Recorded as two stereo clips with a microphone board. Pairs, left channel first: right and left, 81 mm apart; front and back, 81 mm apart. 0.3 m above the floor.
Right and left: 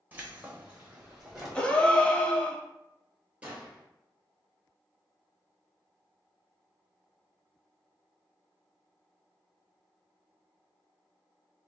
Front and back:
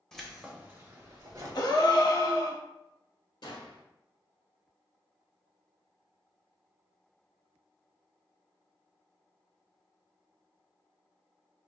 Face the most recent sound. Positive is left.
turn(degrees=15)